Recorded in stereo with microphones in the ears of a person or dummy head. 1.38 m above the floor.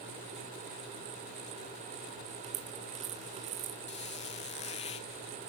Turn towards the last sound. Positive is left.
turn(degrees=30)  # may be behind; listen again after turning